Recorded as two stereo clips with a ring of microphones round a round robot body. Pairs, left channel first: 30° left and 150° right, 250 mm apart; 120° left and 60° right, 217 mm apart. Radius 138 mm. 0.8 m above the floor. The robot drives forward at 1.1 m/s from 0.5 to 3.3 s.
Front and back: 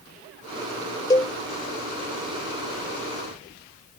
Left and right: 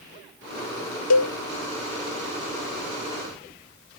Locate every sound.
1.1 s a cowbell: 105° left; by 1.3 s 115° left